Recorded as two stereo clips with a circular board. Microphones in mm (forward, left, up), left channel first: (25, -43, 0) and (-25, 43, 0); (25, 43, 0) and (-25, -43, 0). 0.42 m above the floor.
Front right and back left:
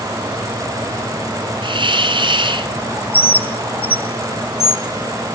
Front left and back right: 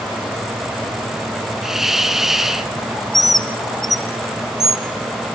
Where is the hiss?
150° left, 2.5 m.